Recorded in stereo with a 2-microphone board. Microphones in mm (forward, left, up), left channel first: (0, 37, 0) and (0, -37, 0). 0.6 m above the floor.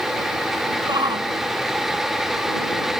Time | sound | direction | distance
0.9 | a shout | 85° right | ?